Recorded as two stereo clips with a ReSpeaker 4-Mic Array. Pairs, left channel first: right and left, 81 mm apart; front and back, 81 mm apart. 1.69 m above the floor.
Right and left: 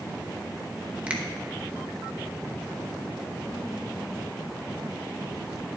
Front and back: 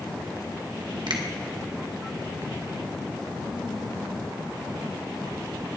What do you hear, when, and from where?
1.1 s a finger snap: 165° left, 1.3 m